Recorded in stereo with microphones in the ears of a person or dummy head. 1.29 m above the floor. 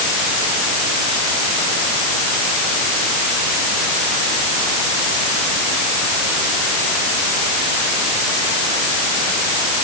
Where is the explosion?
No explosion in this recording.